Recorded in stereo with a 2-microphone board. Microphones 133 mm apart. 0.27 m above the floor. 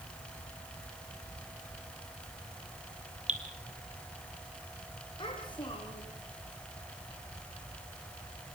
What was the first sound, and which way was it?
Dripping, 65° right (ahead or behind).